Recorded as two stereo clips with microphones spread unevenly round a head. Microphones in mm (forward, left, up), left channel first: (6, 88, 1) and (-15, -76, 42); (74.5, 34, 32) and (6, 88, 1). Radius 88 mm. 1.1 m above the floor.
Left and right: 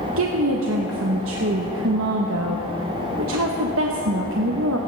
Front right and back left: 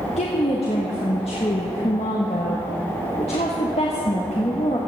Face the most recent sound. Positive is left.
turn(degrees=-90)